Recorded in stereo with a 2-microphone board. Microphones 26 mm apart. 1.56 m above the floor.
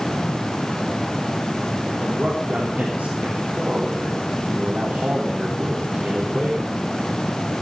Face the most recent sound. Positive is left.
turn(degrees=-80)